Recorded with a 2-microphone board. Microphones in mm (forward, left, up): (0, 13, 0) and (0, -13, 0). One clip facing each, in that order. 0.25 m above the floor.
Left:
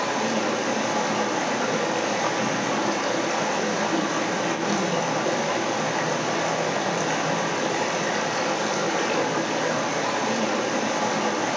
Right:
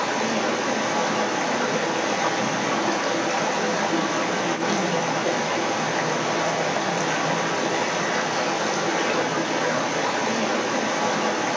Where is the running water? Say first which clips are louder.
Right 1 dB; 5° right (ahead or behind), 4 m.